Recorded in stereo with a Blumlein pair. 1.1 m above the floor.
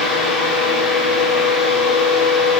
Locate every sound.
0.0 s a fan: 20° left, 2 m